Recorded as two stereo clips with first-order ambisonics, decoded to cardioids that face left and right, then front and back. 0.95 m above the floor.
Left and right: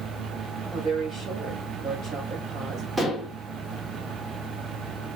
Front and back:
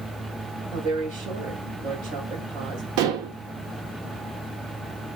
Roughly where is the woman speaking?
Behind right.